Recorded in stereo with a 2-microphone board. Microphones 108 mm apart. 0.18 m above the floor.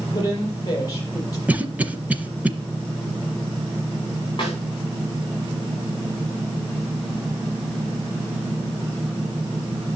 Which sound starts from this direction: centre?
A cough, at 1.5 s.